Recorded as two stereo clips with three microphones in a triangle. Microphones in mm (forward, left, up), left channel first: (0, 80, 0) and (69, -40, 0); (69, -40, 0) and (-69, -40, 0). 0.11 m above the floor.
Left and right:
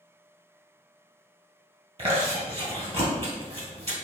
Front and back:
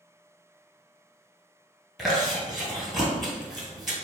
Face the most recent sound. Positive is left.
turn(degrees=-90)